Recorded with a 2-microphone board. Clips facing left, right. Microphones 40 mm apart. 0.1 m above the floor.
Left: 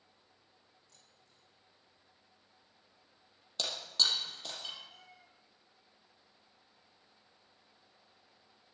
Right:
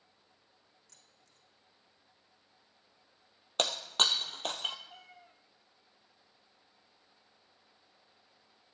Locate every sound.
0.9 s keys jangling: 70° right (ahead or behind), 4 m
3.6 s breaking glass: 60° right (ahead or behind), 1.2 m
4.9 s a cat meowing: 35° right (ahead or behind), 1.5 m